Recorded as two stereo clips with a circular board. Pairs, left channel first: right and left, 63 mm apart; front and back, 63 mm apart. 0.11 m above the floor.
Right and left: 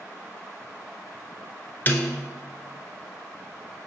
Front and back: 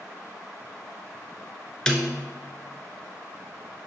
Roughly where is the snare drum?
Right.